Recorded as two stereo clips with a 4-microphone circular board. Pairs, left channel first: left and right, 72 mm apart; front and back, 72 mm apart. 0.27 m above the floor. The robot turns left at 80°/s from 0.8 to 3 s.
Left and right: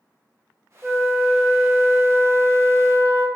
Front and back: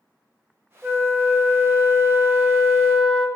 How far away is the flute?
About 0.6 m.